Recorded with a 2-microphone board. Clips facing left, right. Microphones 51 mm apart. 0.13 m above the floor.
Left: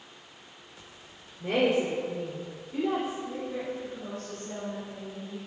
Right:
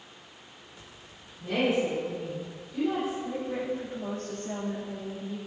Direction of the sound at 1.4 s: 60° left (ahead or behind).